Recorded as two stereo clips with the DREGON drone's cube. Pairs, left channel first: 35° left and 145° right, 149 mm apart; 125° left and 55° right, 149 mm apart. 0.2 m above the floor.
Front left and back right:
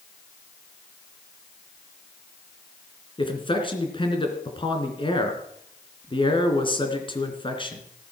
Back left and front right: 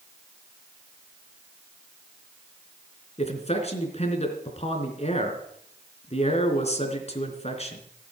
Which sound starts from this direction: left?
A man speaking, at 3.2 s.